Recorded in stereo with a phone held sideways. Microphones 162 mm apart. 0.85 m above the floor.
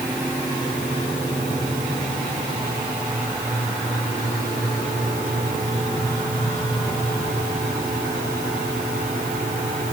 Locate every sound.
Only background noise.